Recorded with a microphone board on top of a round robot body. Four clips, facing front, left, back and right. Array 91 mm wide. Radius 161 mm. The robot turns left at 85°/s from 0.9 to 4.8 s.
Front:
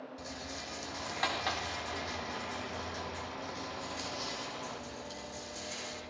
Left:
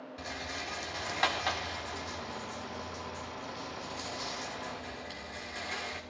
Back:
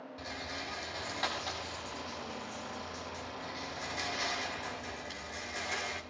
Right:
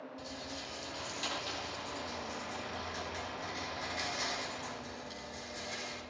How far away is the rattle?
About 4 m.